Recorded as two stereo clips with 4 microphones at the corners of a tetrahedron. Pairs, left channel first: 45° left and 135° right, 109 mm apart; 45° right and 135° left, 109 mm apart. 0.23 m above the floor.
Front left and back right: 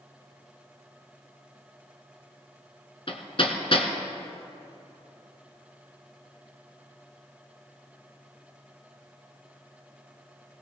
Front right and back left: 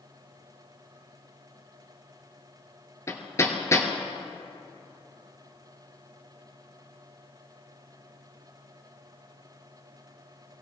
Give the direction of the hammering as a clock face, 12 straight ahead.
11 o'clock.